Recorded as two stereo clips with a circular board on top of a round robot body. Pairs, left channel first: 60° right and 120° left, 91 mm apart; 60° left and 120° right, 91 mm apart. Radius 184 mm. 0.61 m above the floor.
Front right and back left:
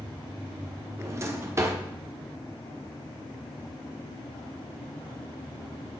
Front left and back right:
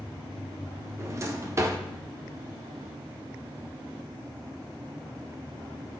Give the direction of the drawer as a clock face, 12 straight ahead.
6 o'clock.